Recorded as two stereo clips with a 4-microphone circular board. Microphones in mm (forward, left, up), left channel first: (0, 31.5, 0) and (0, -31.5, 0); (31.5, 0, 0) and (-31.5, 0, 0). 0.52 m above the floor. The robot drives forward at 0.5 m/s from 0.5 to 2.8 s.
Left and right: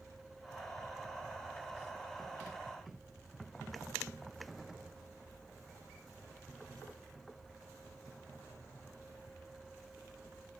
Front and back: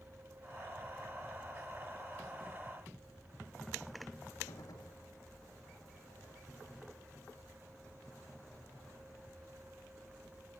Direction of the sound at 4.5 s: 5° right.